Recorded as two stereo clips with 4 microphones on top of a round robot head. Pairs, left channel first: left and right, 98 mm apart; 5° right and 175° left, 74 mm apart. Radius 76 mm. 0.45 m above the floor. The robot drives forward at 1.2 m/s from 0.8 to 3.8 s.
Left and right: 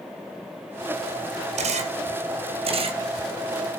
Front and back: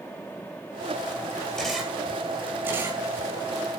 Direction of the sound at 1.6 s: 90° right.